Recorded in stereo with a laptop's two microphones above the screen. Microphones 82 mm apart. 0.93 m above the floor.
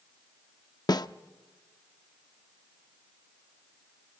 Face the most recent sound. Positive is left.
turn(degrees=55)  # may be behind; listen again after turning